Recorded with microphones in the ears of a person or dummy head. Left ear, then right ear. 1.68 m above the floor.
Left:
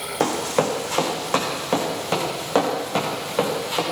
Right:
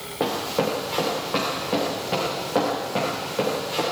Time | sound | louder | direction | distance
0.2 | running footsteps | left 2 dB | 70° left (ahead or behind) | 4.5 m